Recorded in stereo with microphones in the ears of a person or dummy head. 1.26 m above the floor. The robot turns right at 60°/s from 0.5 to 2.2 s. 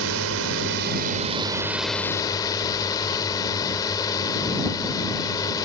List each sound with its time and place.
0.0 s a drone: 80° right; by 5.7 s 20° left